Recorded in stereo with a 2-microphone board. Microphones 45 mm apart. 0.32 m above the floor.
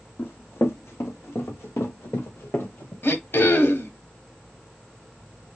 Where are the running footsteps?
55° left (ahead or behind), 1.2 m; by 2.9 s 65° left (ahead or behind), 2.0 m.